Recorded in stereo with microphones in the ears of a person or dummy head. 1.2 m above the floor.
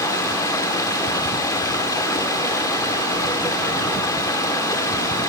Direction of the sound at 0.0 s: 15° left (ahead or behind).